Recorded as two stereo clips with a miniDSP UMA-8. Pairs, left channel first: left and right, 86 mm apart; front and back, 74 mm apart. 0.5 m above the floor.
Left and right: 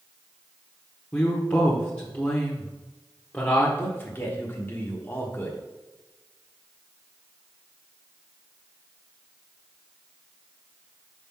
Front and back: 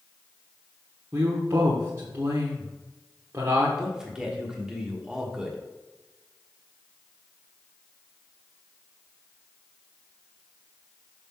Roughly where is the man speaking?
Left.